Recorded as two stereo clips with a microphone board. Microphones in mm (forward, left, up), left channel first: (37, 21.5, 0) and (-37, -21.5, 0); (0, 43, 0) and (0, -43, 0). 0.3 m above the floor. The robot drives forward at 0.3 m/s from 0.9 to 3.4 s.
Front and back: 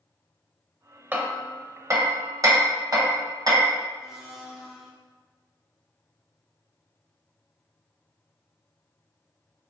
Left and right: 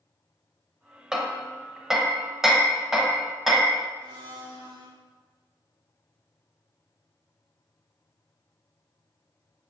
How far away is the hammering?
About 0.6 m.